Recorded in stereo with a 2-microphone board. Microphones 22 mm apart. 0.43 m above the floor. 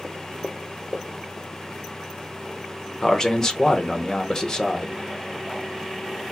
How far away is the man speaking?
About 0.9 m.